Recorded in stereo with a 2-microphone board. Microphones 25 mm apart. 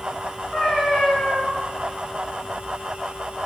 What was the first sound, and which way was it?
A cat meowing, 30° left (ahead or behind).